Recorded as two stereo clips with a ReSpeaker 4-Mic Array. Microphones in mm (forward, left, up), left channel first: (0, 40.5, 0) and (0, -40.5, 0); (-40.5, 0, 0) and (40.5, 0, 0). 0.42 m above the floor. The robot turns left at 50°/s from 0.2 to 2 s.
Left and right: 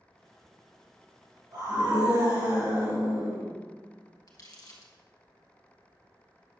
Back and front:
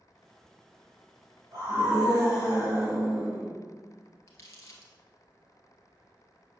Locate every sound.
1.5 s a scream: 50° right, 3 m; by 3.5 s 75° right, 3 m
4.3 s crumpling: 130° left, 1.9 m